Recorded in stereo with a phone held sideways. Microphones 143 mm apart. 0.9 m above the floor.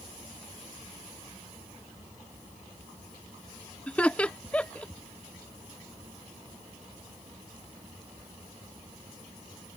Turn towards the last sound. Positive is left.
turn(degrees=10)  # may be behind; listen again after turning